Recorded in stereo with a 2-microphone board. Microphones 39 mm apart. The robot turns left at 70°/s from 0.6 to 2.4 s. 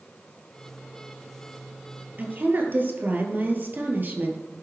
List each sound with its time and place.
2.2 s a woman speaking: 50° right (ahead or behind), 1.8 m; by 4.4 s 55° right (ahead or behind), 1.8 m